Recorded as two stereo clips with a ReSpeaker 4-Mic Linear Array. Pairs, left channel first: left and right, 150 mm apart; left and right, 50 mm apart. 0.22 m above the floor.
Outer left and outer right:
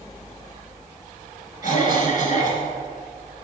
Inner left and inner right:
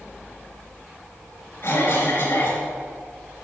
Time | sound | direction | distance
1.6 | a cough | 60° left (ahead or behind) | 2.5 m